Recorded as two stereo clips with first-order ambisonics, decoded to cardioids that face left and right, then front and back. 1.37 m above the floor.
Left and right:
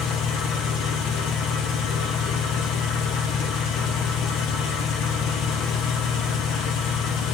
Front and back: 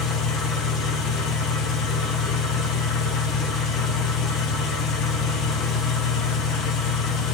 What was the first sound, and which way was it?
An engine running, 50° left.